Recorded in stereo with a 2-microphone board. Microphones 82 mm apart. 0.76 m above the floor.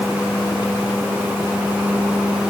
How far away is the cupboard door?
No cupboard door in this recording.